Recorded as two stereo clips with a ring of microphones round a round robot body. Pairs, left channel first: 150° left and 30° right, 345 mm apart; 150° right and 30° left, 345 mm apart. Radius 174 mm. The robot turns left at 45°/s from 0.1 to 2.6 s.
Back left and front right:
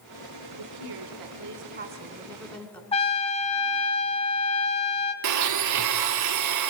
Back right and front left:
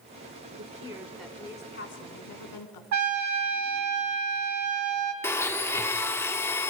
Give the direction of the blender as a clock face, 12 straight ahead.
2 o'clock.